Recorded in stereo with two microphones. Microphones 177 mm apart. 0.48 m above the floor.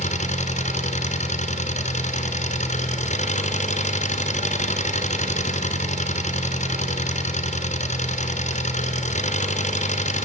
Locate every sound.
0.0 s an engine running: 45° left (ahead or behind), 2 m